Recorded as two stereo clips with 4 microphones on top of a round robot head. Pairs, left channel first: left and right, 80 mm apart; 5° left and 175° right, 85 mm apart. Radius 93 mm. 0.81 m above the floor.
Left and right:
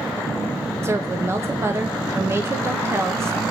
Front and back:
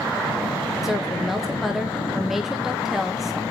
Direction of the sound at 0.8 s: 90° right.